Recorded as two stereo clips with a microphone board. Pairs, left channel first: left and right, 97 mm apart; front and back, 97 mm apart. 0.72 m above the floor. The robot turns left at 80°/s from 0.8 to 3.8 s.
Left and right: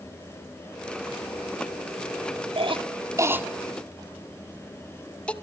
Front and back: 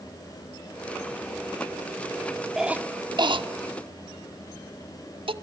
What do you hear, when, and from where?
2.6 s a cough: 95° right, 1.4 m; by 5.3 s 165° left, 1.4 m